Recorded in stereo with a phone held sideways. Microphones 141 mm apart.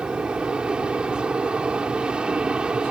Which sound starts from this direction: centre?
An aircraft, at 0.0 s.